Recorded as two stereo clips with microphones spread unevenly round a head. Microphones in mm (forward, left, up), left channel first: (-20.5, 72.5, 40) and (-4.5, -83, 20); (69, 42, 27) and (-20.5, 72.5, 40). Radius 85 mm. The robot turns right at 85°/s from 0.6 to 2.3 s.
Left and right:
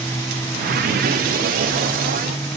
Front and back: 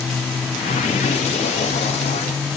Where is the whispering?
No whispering in this recording.